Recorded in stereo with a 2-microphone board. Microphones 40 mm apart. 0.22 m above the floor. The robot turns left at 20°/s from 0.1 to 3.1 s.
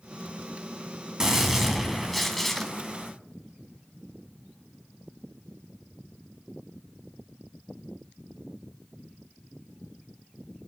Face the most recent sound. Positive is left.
turn(degrees=160)